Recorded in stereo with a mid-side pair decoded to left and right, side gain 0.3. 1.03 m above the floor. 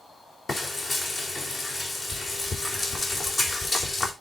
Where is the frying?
65° left, 4.5 m.